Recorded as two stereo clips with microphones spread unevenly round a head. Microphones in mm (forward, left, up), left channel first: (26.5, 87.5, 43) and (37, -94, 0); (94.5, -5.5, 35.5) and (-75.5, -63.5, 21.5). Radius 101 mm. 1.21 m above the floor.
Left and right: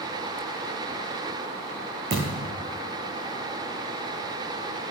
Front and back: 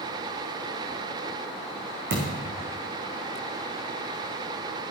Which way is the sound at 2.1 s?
140° right.